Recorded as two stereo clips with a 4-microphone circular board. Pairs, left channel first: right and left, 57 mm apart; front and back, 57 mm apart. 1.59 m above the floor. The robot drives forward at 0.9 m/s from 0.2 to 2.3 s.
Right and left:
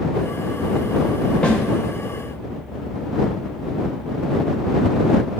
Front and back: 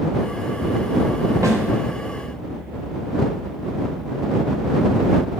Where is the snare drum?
160° right, 1.0 m; by 1.6 s 165° right, 1.1 m.